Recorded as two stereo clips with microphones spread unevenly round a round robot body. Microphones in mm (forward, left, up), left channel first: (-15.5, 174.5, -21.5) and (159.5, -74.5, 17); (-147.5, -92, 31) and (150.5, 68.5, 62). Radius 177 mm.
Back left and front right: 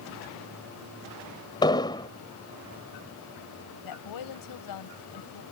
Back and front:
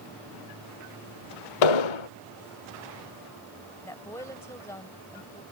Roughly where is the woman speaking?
Behind left.